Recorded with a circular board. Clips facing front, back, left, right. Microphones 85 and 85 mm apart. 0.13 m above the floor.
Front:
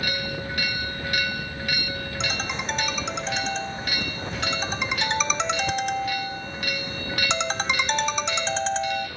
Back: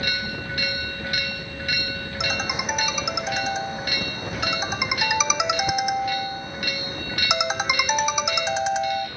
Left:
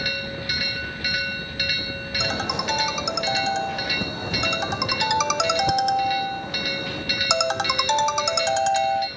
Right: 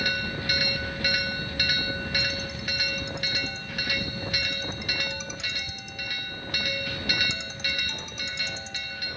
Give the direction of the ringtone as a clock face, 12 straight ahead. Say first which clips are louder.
Back 4 dB, left 7 dB; 9 o'clock.